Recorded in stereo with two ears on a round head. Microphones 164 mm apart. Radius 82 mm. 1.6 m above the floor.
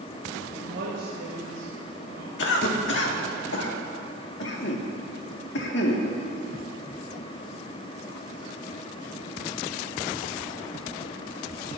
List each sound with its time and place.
0.5 s a woman speaking: 70° right (ahead or behind), 6 m
2.4 s a cough: 70° left (ahead or behind), 2 m